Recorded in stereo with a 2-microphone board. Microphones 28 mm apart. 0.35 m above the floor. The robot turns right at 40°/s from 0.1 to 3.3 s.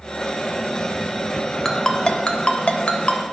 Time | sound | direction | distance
1.6 | a ringtone | 15° left (ahead or behind) | 0.6 m